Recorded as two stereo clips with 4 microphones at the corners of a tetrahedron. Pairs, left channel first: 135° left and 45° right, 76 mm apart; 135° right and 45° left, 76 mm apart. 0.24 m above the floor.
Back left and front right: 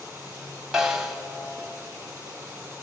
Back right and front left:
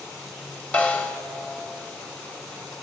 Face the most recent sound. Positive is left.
turn(degrees=-115)